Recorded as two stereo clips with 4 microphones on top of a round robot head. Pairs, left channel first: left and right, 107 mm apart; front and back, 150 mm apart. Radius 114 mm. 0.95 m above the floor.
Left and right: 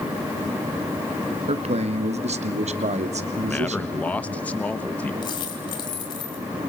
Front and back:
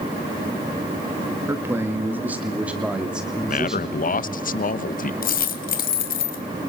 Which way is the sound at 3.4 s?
15° left.